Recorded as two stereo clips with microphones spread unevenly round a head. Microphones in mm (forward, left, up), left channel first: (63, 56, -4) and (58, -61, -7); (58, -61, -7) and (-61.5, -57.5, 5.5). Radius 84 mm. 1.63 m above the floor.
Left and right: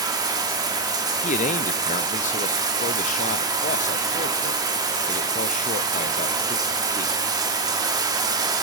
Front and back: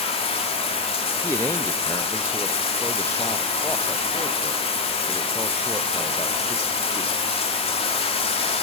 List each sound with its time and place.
0.0 s running water: 40° right, 2 m
1.2 s a man speaking: 75° left, 0.8 m